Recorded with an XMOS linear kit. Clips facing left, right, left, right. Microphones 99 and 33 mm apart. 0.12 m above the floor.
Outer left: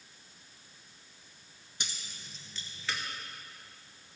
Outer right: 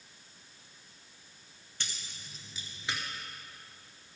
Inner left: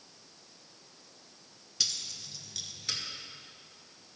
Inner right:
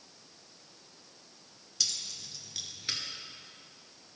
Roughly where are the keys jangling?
Centre.